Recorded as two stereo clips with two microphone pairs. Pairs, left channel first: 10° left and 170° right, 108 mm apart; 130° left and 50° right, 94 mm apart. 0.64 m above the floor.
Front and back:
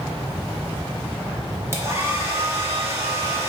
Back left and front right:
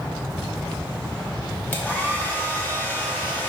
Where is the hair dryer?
Straight behind, 0.7 m.